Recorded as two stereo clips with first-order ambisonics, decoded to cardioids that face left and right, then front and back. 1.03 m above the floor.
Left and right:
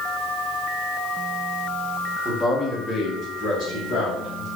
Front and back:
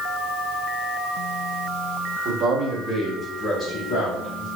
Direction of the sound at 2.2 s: Straight behind.